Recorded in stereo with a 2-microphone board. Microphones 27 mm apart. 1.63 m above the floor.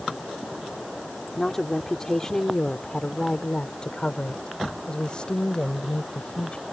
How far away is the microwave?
No microwave in this recording.